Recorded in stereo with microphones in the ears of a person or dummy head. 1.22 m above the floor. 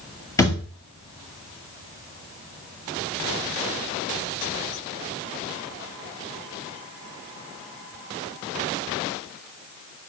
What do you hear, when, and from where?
0.4 s a thud: 15° left (ahead or behind), 2 m